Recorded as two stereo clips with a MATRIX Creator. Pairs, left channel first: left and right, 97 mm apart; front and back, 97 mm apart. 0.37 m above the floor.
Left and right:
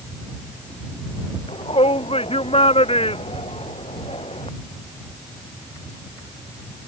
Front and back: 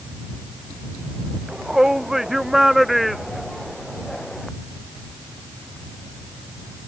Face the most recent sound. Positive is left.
turn(degrees=85)